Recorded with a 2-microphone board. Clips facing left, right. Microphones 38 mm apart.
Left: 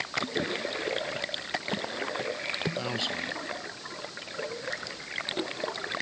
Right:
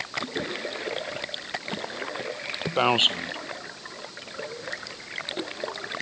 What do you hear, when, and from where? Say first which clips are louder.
2.8 s a man speaking: right 10 dB; 50° right (ahead or behind)